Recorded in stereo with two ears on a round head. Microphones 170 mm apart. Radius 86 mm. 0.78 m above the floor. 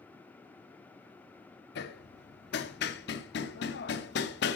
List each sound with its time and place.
1.8 s hammering: 55° left (ahead or behind), 0.9 m